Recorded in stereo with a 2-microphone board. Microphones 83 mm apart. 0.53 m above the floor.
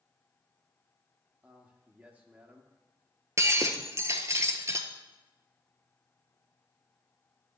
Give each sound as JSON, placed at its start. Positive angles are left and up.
{"t": 1.4, "sound": "a man speaking", "side_deg": -20, "distance_m": 1.3}
{"t": 3.4, "sound": "breaking glass", "side_deg": -35, "distance_m": 1.0}